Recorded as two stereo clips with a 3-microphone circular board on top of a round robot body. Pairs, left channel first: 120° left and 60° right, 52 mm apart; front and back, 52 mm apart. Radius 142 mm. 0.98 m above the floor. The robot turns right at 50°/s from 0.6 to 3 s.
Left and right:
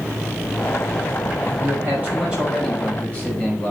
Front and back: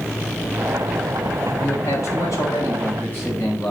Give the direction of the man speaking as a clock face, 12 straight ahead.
1 o'clock.